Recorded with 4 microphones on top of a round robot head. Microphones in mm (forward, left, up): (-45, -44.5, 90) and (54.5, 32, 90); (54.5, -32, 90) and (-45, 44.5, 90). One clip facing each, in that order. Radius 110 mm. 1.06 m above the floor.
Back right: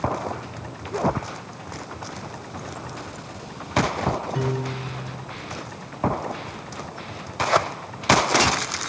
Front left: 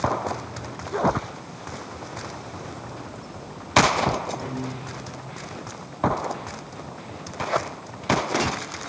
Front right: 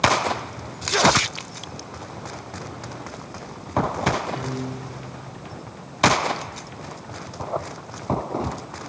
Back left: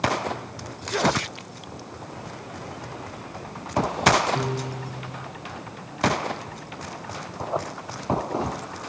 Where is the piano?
165° right, 2 m.